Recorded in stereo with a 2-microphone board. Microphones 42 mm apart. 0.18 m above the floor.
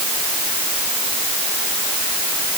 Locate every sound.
Only background noise.